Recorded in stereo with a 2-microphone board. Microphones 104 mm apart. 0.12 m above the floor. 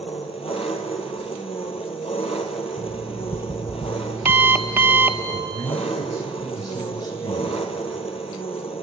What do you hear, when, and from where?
0.0 s an engine running: 70° left (ahead or behind), 1.9 m
2.8 s an alarm clock: 20° right (ahead or behind), 1.1 m
5.3 s a man speaking: 45° left (ahead or behind), 5 m